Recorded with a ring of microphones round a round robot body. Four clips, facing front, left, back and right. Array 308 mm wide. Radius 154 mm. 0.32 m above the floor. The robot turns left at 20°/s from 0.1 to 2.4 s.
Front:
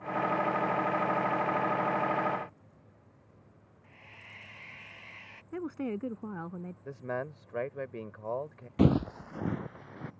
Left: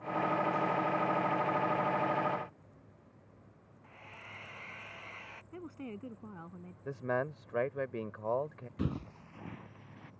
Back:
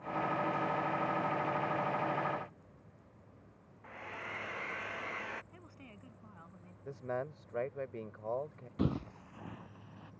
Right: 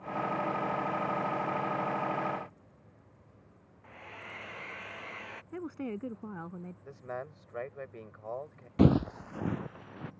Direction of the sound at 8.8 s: 55° right.